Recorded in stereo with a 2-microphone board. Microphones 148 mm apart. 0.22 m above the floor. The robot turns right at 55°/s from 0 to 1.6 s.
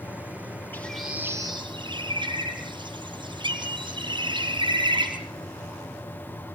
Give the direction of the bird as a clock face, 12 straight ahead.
6 o'clock.